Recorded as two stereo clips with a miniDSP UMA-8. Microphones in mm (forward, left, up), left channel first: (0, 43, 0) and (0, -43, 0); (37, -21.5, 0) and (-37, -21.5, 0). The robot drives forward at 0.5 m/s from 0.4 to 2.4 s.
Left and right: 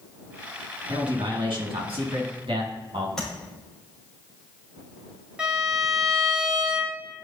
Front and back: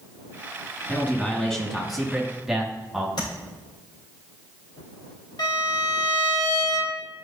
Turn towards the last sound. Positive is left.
turn(degrees=-10)